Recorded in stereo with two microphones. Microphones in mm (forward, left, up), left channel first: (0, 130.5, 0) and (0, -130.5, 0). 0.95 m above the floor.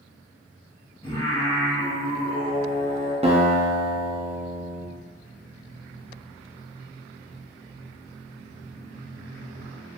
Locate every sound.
1.0 s singing: 20° left (ahead or behind), 1.4 m
3.2 s a guitar: 25° right (ahead or behind), 0.7 m